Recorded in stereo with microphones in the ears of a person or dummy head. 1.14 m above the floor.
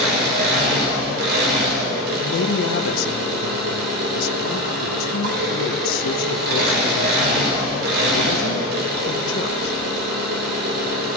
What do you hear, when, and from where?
0.0 s an engine running: 60° right (ahead or behind), 2.5 m
2.2 s a woman speaking: 65° left (ahead or behind), 0.9 m